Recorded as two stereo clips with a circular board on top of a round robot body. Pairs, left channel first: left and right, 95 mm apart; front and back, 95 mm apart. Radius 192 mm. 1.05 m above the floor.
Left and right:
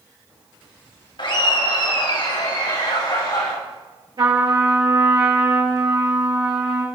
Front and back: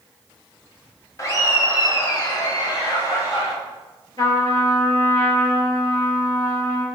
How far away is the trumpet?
About 5 m.